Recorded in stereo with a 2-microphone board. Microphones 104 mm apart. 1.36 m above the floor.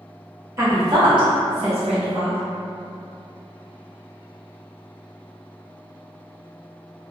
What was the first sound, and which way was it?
A woman speaking, 30° right (ahead or behind).